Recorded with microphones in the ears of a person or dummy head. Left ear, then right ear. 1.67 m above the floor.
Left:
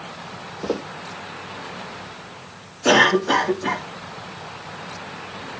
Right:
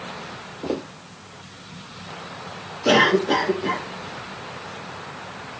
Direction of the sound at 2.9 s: 50° left (ahead or behind).